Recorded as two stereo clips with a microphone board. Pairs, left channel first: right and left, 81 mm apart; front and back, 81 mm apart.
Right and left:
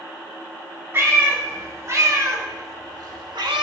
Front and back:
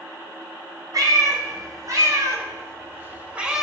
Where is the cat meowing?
145° left, 1.7 m; by 3.6 s 95° left, 0.6 m.